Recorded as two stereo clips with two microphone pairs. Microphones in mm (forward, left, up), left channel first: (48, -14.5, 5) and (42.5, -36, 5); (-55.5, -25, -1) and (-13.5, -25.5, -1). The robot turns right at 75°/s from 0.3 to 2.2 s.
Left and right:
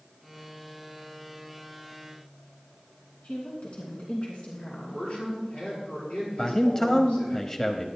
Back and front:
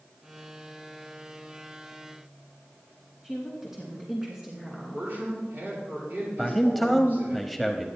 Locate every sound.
3.2 s a woman speaking: 80° left, 2.5 m
4.9 s a man speaking: 45° left, 5.5 m
6.4 s a man speaking: 100° left, 1.0 m